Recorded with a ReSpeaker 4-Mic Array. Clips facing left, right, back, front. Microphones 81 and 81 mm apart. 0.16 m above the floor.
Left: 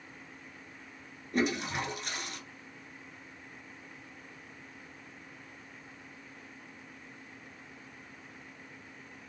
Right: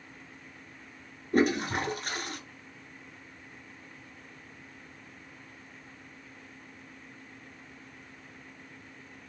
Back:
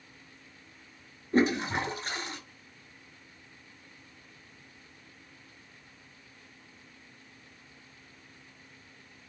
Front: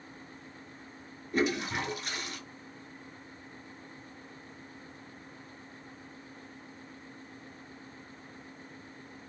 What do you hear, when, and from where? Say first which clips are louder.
1.3 s a toilet flushing: right 5 dB, back 4 dB; 125° right, 0.7 m